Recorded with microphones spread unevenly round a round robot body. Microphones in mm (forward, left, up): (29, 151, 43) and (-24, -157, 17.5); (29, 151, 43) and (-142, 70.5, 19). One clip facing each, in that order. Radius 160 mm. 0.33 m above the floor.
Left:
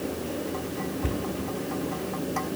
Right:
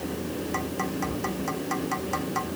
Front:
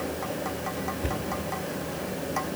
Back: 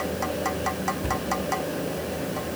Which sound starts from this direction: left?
A cupboard door, at 1.0 s.